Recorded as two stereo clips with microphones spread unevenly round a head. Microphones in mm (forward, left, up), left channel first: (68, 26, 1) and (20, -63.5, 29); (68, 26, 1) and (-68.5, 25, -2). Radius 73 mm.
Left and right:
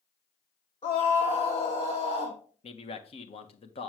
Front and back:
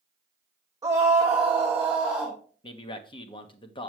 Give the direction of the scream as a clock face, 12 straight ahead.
8 o'clock.